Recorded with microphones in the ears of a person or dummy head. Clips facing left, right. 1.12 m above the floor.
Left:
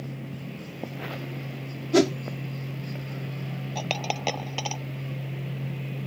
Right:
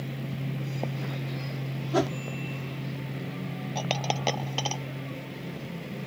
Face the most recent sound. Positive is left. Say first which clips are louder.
# right 1 dB
turn(degrees=0)  # may be behind; listen again after turning